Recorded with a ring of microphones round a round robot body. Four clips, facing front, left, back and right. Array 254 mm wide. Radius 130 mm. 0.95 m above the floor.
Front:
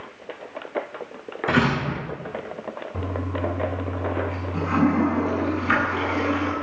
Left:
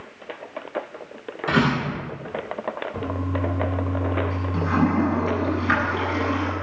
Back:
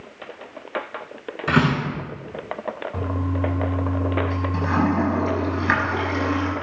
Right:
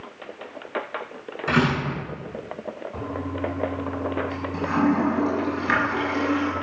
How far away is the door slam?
About 9 m.